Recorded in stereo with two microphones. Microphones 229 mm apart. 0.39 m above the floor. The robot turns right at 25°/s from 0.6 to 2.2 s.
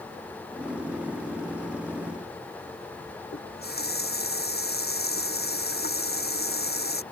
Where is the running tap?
40° left (ahead or behind).